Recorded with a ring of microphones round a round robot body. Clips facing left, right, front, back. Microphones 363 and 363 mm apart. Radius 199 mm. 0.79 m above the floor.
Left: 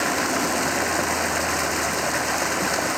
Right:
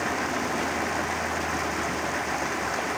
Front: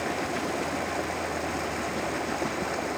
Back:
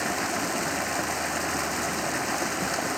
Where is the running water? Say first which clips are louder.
Left 5 dB, even; 120° left.